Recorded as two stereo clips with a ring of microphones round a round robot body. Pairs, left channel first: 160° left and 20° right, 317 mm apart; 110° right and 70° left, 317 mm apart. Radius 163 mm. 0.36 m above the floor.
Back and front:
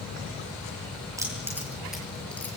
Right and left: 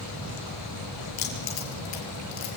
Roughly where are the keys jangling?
Right.